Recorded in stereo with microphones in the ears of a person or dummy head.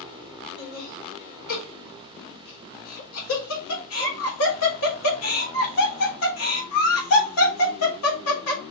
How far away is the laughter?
About 3.5 m.